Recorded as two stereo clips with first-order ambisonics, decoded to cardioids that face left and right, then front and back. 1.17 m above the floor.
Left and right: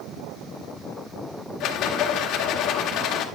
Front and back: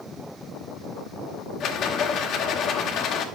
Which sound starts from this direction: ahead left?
A rattle, at 1.6 s.